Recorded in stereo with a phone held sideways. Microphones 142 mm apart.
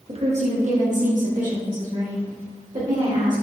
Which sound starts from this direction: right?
A woman speaking, at 0.1 s.